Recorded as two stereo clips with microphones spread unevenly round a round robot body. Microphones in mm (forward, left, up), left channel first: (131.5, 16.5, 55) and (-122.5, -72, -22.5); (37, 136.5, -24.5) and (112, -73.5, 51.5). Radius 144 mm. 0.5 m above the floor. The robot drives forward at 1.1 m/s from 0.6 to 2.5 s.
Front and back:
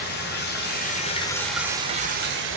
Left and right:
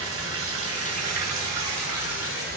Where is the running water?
40° right, 1.6 m; by 2.6 s 135° right, 1.5 m.